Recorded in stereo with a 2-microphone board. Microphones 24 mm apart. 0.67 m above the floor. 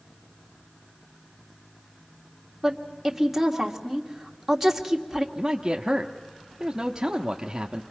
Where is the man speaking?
25° right (ahead or behind), 0.9 m.